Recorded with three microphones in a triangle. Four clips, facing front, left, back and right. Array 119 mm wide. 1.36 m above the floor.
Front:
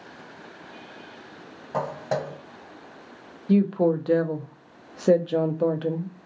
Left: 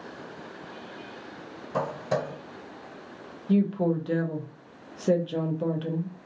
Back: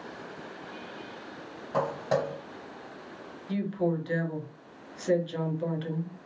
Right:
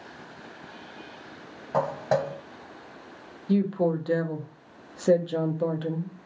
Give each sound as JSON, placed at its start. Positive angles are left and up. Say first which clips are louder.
{"t": 1.7, "sound": "footsteps", "louder": "right 3 dB, even", "azimuth_deg": -80, "distance_m": 1.9}
{"t": 3.5, "sound": "a woman speaking", "louder": "even, front 8 dB", "azimuth_deg": -10, "distance_m": 0.6}